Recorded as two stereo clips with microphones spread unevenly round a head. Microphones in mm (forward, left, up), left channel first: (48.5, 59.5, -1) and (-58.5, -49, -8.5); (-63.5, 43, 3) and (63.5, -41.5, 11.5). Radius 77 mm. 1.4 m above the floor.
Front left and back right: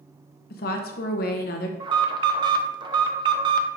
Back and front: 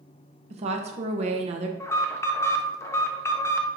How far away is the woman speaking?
About 0.8 m.